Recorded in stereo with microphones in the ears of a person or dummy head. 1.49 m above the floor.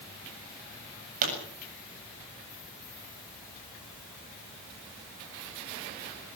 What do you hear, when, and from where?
1.2 s a pop: 50° right (ahead or behind), 7.5 m